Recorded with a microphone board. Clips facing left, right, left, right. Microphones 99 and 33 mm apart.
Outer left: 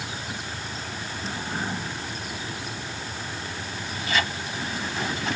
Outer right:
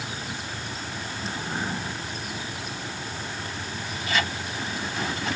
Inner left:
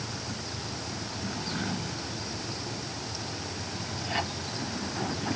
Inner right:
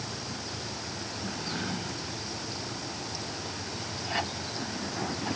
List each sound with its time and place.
Only background noise.